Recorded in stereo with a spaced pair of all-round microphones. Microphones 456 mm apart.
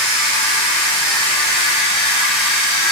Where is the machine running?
70° right (ahead or behind), 9.5 m.